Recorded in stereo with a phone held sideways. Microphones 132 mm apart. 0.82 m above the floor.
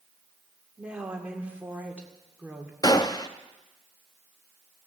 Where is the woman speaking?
10° right (ahead or behind), 2 m.